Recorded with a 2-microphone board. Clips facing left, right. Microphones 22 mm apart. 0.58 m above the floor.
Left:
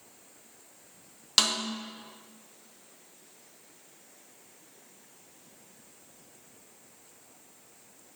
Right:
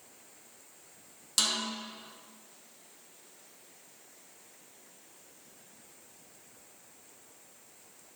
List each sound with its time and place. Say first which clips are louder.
1.4 s a snare drum: left 4 dB; 35° left (ahead or behind), 0.6 m